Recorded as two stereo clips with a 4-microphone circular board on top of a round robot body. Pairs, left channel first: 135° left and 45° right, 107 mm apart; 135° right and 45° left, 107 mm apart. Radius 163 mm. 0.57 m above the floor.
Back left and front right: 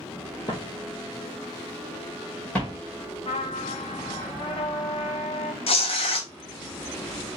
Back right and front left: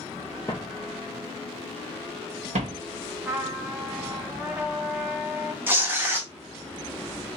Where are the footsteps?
175° left, 0.5 m; by 2.8 s 55° left, 1.3 m.